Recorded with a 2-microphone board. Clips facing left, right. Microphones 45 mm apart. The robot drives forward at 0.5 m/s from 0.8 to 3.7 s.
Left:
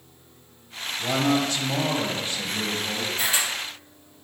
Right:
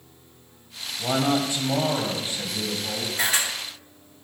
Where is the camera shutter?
60° right (ahead or behind), 2.5 m.